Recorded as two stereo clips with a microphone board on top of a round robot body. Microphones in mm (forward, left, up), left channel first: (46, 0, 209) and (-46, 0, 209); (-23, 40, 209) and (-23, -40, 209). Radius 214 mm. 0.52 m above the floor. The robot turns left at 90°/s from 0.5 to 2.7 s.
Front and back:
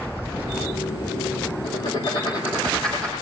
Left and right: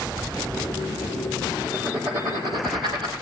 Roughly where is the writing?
Ahead.